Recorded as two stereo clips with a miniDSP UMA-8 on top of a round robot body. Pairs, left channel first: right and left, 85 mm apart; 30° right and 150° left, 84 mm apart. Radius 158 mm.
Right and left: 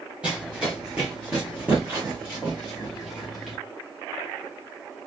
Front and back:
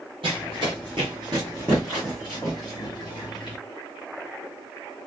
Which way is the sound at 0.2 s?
165° left.